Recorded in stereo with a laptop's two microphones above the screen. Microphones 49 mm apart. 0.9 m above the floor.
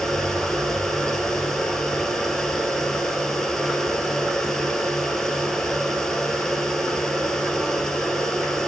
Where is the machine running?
10° left (ahead or behind), 3 m.